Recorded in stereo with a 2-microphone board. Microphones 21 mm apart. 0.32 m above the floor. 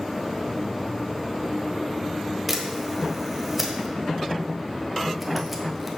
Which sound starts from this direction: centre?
A camera shutter, at 2.5 s.